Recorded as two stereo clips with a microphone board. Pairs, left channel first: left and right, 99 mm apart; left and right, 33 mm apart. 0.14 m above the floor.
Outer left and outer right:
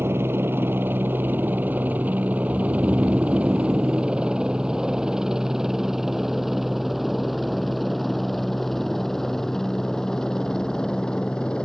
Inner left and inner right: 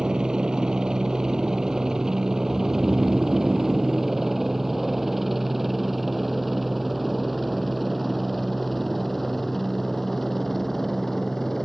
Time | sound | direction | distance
0.0 | a helicopter | 25° right (ahead or behind) | ?
2.5 | snoring | 25° right (ahead or behind) | ?